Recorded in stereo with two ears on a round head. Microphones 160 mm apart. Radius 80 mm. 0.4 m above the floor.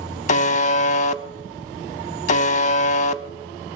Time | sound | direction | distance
0.3 | a buzzer | 40° left (ahead or behind) | 0.5 m